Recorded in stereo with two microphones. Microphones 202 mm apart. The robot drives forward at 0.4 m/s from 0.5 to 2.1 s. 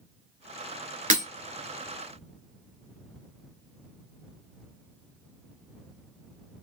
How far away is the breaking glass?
About 1.1 m.